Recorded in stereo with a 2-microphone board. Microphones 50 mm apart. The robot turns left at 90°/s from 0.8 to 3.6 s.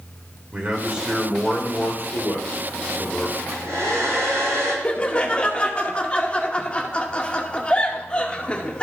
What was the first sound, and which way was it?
A man speaking, 140° right.